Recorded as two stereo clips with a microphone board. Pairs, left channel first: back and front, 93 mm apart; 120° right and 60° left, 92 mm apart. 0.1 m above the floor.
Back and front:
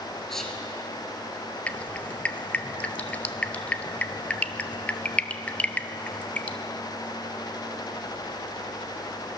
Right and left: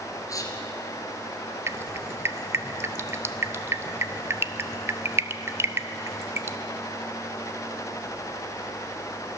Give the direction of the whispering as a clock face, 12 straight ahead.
3 o'clock.